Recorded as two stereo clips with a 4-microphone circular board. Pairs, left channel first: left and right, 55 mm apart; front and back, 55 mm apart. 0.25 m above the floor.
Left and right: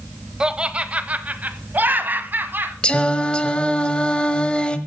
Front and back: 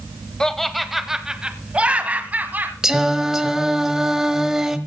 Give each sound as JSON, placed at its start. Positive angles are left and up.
{"t": 0.4, "sound": "laughter", "azimuth_deg": -50, "distance_m": 1.0}
{"t": 2.8, "sound": "singing", "azimuth_deg": 110, "distance_m": 1.1}